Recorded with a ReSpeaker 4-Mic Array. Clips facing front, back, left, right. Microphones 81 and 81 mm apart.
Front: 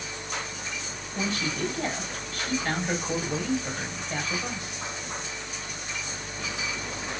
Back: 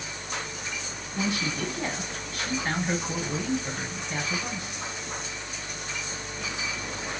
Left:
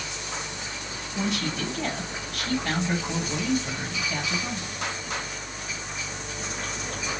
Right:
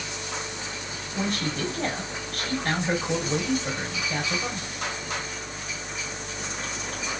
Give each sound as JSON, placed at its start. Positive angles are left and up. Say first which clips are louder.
{"t": 1.1, "sound": "a man speaking", "louder": "even, even", "azimuth_deg": -105, "distance_m": 3.5}